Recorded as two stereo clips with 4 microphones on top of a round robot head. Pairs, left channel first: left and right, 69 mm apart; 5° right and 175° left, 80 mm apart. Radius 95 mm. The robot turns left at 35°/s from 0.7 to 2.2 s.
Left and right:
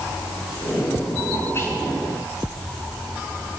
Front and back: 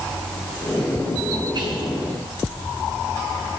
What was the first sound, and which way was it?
Whispering, 145° left.